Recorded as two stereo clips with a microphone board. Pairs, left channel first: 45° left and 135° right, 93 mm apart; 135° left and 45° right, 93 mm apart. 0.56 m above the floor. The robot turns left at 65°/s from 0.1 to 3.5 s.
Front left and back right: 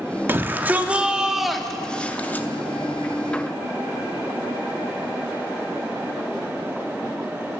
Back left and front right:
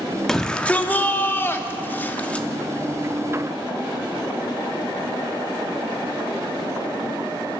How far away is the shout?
About 0.6 m.